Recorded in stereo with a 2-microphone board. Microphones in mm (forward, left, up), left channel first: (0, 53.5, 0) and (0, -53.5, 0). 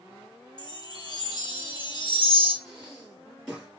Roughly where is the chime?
Left.